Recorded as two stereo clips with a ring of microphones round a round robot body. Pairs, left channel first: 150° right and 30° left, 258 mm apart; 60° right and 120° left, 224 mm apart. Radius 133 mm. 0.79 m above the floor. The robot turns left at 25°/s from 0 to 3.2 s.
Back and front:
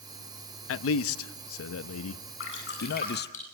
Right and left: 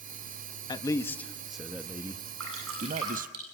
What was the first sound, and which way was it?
A man speaking, 130° right.